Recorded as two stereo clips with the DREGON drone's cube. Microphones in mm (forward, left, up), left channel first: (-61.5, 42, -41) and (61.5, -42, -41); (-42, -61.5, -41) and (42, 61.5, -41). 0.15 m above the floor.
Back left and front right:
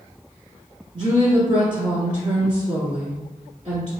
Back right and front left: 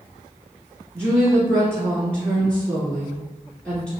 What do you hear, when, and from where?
0.9 s a woman speaking: 45° right, 1.3 m